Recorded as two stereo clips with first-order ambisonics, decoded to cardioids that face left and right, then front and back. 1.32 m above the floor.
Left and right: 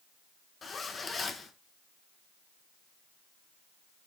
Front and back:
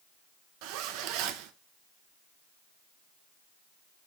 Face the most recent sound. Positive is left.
turn(degrees=160)